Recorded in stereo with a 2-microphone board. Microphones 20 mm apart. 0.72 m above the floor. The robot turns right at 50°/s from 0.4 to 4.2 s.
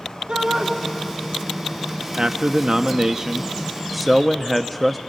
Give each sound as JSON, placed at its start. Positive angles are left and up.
{"t": 0.3, "sound": "a shout", "side_deg": -50, "distance_m": 2.0}
{"t": 2.1, "sound": "a man speaking", "azimuth_deg": -95, "distance_m": 0.6}